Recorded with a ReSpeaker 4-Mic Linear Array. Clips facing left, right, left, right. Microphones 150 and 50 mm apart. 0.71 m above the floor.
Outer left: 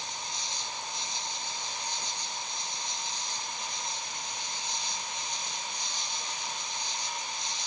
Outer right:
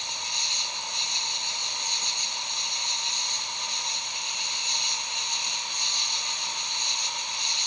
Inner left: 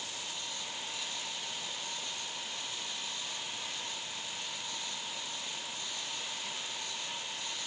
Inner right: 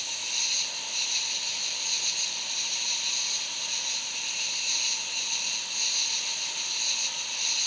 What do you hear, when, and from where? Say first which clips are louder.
0.0 s an insect: outer right 1 dB, inner right 6 dB; 70° right (ahead or behind)